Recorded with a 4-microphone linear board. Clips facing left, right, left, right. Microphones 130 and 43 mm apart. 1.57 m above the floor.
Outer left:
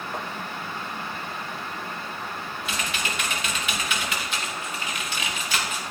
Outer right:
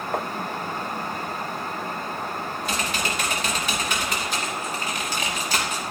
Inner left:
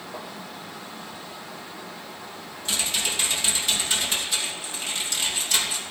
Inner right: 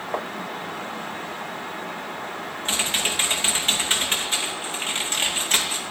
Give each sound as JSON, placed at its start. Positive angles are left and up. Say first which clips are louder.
{"t": 0.1, "sound": "tapping", "louder": "outer right 7 dB, inner right 10 dB", "side_deg": -60, "distance_m": 0.8}
{"t": 2.6, "sound": "typing on a keyboard", "louder": "outer right 3 dB, inner right 3 dB", "side_deg": -40, "distance_m": 2.5}